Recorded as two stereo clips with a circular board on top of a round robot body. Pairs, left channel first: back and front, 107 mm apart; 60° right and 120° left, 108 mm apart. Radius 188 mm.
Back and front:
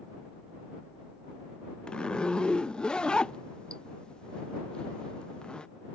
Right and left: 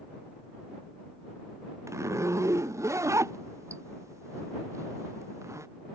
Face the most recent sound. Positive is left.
turn(degrees=110)